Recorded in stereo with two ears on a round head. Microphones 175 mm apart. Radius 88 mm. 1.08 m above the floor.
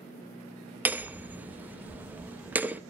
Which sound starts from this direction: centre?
Hammering, at 0.8 s.